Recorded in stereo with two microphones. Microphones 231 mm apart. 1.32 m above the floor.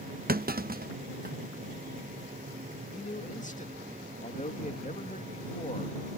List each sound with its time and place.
0.3 s a clunk: 40° right (ahead or behind)
2.9 s a man speaking: 35° left (ahead or behind)